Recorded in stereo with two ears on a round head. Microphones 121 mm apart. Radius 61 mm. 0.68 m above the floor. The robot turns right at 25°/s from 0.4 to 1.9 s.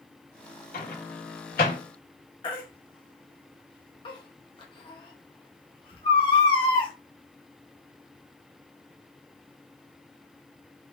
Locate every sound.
0.7 s a microwave: 70° left (ahead or behind), 1.9 m
2.4 s a baby crying: 35° left (ahead or behind), 1.1 m